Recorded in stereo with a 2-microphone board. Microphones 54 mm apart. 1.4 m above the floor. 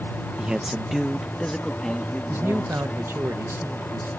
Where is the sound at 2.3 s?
55° right (ahead or behind).